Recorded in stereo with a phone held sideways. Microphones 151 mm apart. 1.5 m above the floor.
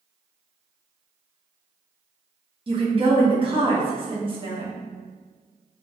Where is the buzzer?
I don't hear a buzzer.